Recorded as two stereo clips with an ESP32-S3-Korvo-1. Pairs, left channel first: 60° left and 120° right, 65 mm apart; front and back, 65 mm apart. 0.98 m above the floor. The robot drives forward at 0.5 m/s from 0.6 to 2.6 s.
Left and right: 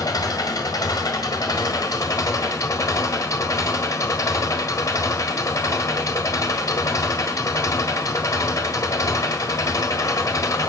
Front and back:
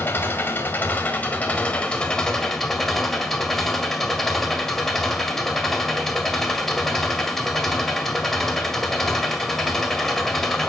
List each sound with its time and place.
0.0 s an engine running: 55° left, 2 m; by 10.7 s 85° left, 1.8 m